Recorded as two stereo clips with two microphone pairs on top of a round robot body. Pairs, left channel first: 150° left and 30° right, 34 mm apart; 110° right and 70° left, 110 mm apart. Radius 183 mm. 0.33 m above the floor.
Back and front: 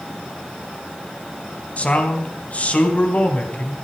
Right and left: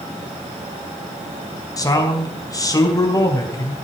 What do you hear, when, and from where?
1.8 s a man speaking: 165° right, 4 m